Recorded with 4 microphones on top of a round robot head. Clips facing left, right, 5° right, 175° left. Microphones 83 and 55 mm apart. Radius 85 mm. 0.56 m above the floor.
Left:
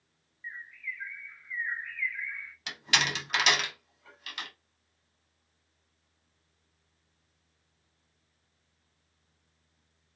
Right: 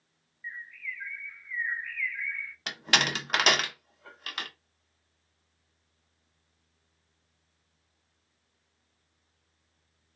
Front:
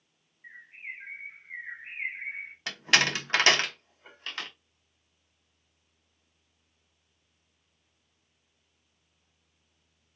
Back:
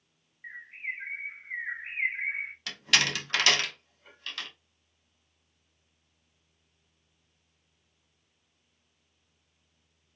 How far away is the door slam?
About 0.9 m.